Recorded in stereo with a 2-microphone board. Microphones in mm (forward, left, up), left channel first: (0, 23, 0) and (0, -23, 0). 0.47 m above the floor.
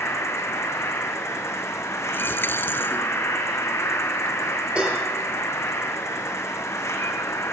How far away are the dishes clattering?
About 6.5 m.